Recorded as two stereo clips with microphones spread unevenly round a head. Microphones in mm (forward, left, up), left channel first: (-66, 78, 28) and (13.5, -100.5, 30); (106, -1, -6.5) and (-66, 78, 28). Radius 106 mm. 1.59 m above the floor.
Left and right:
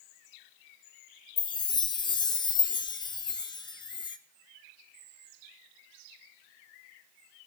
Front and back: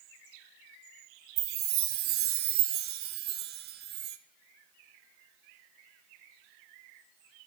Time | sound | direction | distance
1.4 | a chime | straight behind | 0.6 m